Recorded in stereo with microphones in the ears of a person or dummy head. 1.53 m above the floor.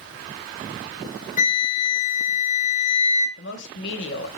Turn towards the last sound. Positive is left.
turn(degrees=70)  # may be behind; listen again after turning